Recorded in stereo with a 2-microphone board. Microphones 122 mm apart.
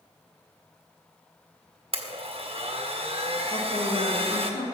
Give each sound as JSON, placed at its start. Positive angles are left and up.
{"t": 1.9, "sound": "a blender", "side_deg": -50, "distance_m": 1.3}
{"t": 3.5, "sound": "a woman speaking", "side_deg": 80, "distance_m": 2.5}